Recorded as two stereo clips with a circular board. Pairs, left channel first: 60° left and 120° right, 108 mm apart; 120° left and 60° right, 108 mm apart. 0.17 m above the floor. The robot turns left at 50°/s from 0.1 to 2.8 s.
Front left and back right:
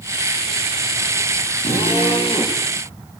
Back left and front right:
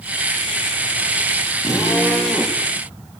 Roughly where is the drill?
Left.